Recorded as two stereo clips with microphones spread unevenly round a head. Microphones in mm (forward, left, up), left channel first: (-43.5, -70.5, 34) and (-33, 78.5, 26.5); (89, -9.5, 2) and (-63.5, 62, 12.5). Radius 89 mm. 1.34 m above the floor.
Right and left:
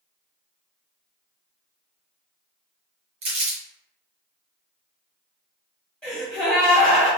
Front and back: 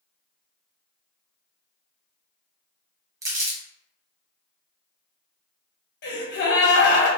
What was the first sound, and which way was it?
Crumpling, 100° left.